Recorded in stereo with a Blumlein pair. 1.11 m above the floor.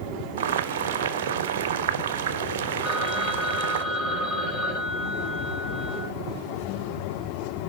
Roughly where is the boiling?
Ahead right.